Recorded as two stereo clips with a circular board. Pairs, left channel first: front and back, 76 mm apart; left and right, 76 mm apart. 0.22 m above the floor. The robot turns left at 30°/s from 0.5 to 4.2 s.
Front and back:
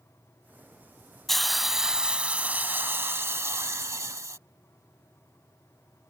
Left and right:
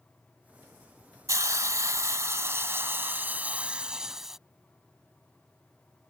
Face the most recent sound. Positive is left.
turn(degrees=-170)